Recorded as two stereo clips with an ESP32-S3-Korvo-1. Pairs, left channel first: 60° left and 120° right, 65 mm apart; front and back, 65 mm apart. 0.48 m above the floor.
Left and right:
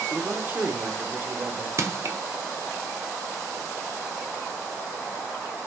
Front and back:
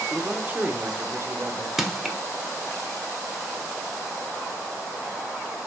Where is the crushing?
95° right, 1.1 m.